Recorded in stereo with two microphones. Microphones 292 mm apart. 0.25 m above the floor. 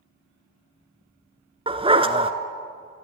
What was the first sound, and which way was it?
A dog barking, 20° right (ahead or behind).